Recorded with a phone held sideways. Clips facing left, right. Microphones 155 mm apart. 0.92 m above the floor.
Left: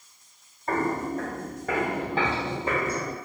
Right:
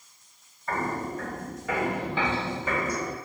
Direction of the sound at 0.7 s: 50° left (ahead or behind).